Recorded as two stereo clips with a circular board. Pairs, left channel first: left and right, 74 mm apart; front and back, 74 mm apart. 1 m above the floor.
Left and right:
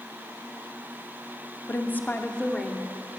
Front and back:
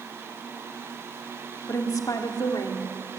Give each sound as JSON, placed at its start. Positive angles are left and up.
{"t": 1.7, "sound": "a woman speaking", "azimuth_deg": 35, "distance_m": 2.0}